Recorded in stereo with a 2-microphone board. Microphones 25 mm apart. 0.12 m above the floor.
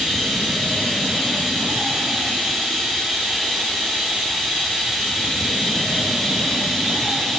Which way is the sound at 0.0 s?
40° right (ahead or behind).